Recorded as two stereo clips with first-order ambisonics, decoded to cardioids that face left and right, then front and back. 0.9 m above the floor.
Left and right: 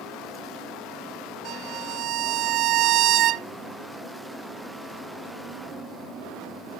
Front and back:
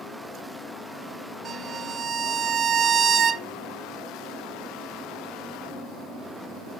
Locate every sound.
1.4 s a violin: 125° right, 0.6 m